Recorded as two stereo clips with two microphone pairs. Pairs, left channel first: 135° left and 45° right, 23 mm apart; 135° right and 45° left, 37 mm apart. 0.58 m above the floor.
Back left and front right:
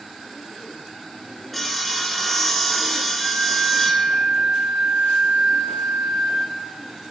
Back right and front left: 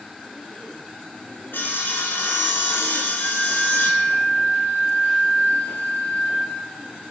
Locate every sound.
1.5 s sawing: 135° right, 1.1 m
3.2 s a flute: 140° right, 5 m